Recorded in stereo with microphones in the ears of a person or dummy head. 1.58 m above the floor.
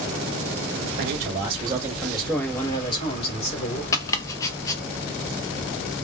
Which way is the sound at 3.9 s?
20° left (ahead or behind).